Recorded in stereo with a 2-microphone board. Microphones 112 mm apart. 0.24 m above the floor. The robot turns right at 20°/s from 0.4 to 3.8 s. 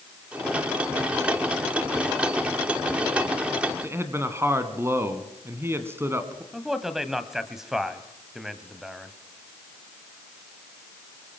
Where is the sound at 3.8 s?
20° right (ahead or behind), 2.5 m.